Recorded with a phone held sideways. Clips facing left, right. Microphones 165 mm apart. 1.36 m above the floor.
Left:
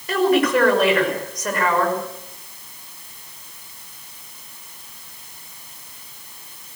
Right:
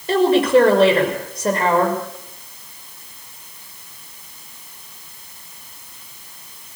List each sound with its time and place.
0.1 s a woman speaking: 30° right (ahead or behind), 6 m